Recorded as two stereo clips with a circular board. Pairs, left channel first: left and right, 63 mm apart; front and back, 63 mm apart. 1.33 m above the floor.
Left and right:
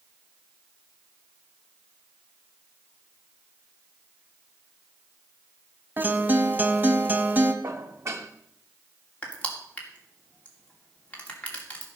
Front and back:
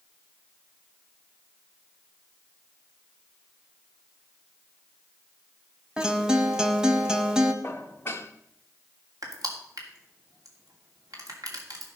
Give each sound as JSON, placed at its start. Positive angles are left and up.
{"t": 6.0, "sound": "a guitar", "azimuth_deg": -115, "distance_m": 1.3}
{"t": 7.6, "sound": "dishes clattering", "azimuth_deg": -50, "distance_m": 1.3}
{"t": 9.2, "sound": "crushing", "azimuth_deg": 160, "distance_m": 2.5}